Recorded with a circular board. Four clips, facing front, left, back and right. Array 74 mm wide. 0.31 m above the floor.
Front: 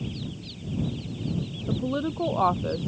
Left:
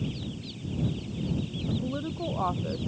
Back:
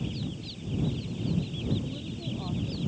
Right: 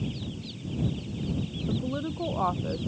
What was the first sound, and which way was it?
A woman speaking, 5° right.